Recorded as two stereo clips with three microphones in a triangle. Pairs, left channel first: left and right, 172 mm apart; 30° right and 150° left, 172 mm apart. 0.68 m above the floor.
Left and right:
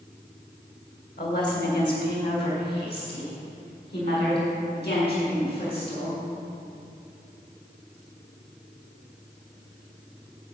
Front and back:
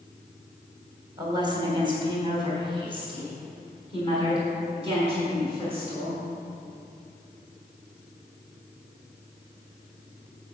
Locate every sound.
1.2 s a woman speaking: 85° left, 3 m; by 6.2 s 95° left, 6.5 m